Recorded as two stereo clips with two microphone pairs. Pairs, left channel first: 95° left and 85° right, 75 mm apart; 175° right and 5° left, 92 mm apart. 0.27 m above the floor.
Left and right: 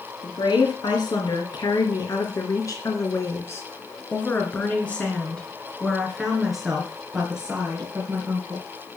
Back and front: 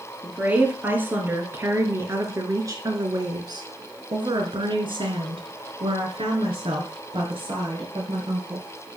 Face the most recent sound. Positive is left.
turn(degrees=-15)